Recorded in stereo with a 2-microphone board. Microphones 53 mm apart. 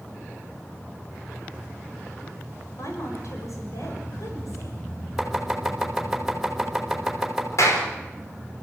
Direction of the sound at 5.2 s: Centre (ahead or behind).